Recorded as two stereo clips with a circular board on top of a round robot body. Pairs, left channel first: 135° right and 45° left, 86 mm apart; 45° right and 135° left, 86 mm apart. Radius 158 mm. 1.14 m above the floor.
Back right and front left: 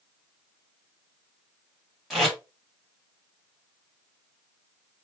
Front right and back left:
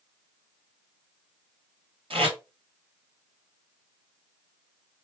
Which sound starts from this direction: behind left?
Tape being pulled, at 2.1 s.